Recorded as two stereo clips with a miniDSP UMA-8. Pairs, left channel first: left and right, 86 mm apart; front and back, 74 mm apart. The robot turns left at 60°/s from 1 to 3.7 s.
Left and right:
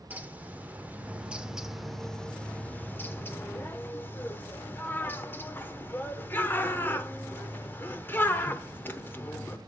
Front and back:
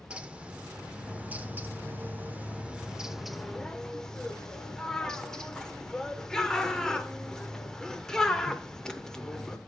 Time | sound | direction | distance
0.1 | a bird | 130° right | 0.7 m